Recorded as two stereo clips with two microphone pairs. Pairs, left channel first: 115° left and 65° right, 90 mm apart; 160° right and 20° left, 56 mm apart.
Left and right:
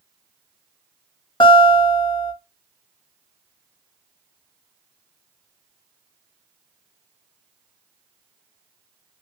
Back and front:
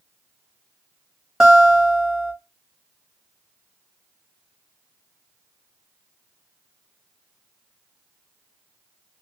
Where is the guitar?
100° left, 1.4 m.